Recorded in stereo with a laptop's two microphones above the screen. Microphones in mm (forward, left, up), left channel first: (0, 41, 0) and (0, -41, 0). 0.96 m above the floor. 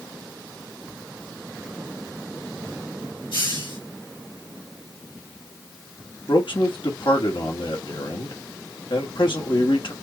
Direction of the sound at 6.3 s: 75° left (ahead or behind).